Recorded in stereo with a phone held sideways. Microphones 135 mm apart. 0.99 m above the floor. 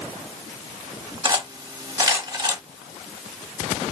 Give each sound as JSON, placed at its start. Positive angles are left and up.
{"t": 1.2, "sound": "cutlery clinking", "side_deg": -25, "distance_m": 0.9}